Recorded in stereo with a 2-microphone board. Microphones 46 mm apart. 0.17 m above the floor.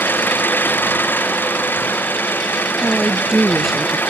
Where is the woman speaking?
5° right (ahead or behind).